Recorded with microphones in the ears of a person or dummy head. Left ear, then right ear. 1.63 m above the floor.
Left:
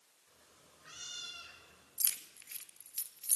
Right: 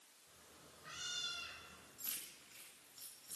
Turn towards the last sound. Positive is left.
turn(degrees=70)  # may be behind; listen again after turning